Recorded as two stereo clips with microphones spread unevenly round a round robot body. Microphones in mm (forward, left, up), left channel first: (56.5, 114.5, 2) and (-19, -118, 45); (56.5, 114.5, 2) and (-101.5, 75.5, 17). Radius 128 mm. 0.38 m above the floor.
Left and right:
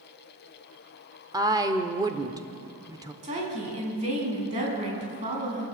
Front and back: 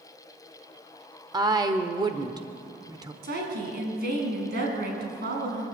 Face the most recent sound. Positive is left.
turn(degrees=-175)